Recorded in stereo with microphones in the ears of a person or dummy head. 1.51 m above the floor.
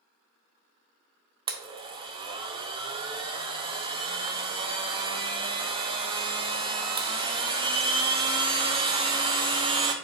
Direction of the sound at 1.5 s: 25° right (ahead or behind).